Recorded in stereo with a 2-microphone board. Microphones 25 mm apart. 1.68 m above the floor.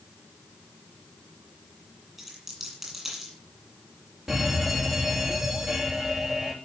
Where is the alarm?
25° right (ahead or behind), 3 m.